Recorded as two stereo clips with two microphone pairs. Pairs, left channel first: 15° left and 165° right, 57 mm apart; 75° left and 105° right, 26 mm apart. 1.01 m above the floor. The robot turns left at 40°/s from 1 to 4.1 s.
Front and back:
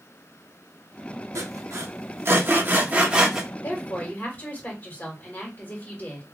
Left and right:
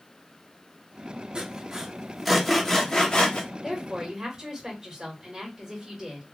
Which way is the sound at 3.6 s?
25° right.